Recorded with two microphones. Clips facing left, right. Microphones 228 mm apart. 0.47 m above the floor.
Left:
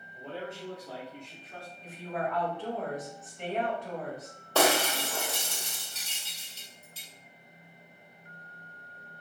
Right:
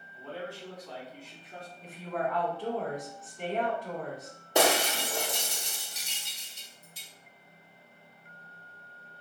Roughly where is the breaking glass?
Centre.